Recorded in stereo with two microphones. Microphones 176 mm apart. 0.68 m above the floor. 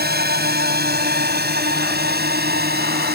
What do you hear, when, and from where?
0.0 s a drone: 75° right (ahead or behind)